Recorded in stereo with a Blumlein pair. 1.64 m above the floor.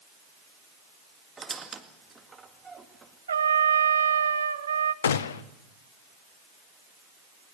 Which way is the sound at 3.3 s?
70° right.